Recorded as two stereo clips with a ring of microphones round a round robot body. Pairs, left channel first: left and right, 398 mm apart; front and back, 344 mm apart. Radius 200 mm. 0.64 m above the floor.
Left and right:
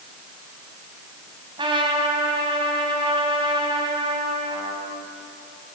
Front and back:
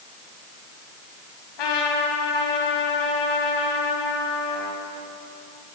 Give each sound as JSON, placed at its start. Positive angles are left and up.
{"t": 1.6, "sound": "a trumpet", "azimuth_deg": -10, "distance_m": 4.0}